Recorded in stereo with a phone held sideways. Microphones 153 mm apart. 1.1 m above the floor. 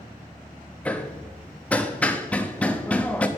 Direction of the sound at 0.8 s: 10° left (ahead or behind).